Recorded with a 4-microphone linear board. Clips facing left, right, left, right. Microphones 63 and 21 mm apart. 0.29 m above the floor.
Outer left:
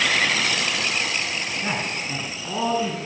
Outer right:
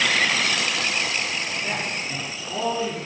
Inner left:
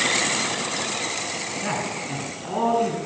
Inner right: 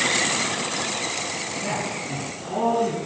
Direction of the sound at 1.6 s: 60° left (ahead or behind).